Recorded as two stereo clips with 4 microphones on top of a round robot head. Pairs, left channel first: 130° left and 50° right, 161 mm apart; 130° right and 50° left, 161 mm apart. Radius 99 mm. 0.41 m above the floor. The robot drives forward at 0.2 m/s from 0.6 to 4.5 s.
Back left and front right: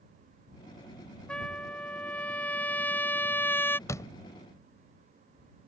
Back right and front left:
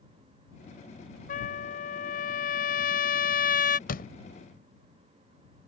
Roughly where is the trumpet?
Behind right.